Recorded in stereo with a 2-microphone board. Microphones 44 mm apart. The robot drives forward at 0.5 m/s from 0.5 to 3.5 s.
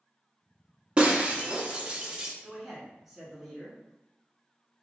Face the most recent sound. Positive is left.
turn(degrees=-5)  # may be behind; listen again after turning